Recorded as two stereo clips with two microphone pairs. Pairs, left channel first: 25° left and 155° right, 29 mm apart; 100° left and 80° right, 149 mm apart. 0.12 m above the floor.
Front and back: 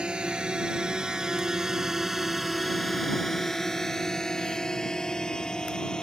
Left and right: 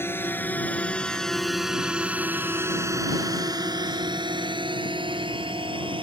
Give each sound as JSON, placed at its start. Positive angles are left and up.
{"t": 0.0, "sound": "a drone", "azimuth_deg": 165}